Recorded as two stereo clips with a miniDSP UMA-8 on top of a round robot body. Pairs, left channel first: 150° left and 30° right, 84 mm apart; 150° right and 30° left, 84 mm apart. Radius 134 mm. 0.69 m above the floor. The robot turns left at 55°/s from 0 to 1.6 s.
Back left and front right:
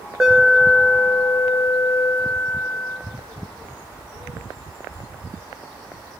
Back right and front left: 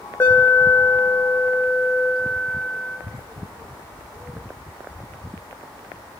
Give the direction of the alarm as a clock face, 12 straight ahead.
4 o'clock.